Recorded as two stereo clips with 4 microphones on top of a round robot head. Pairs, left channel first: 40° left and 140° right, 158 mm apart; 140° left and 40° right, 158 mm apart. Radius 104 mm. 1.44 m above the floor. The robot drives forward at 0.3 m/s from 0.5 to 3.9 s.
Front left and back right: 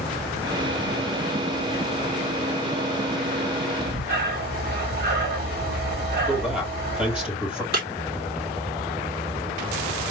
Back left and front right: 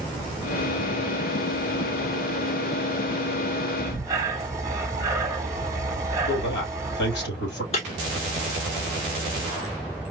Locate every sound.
3.8 s breathing: 110° right, 1.7 m
6.3 s a man speaking: 140° left, 3 m
7.7 s breaking glass: 170° right, 2 m